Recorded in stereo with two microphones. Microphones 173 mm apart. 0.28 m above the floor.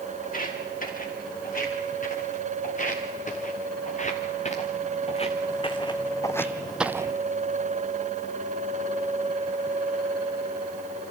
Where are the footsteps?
50° left (ahead or behind), 5.5 m; by 7.2 s 25° right (ahead or behind), 0.6 m.